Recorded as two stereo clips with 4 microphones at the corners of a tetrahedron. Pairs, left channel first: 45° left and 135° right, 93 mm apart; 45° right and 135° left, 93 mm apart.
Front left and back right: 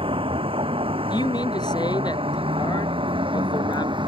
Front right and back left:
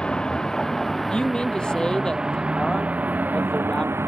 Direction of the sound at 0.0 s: 125° right.